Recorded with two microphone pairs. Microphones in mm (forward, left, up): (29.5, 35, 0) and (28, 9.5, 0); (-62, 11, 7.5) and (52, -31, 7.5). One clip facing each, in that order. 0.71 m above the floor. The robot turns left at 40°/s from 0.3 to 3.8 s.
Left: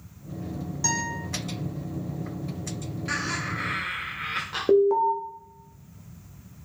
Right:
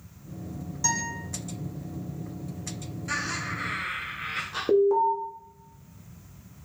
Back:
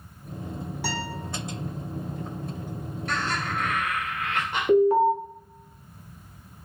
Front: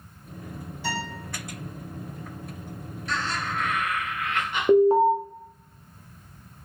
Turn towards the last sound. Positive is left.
turn(degrees=25)